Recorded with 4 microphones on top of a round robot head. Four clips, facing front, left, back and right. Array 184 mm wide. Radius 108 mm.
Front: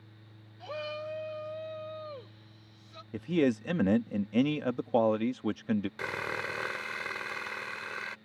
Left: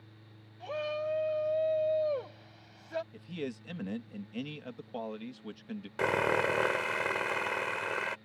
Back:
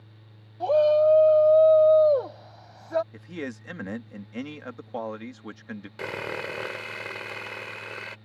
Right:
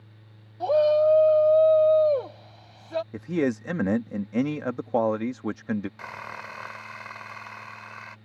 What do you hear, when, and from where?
0.6 s a shout: 140° right; by 3.0 s 160° right
3.1 s a man speaking: 60° right
6.0 s sawing: 110° left